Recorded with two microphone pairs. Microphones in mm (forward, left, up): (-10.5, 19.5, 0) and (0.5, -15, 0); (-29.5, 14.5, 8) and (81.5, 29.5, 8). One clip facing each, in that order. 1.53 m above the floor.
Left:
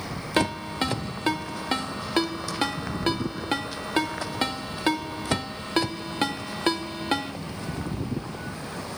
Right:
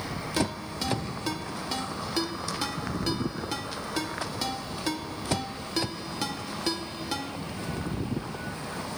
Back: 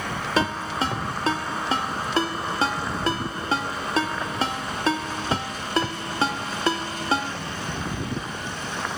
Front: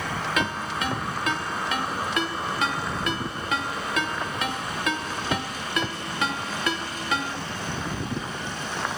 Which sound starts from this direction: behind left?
A ringtone, at 0.4 s.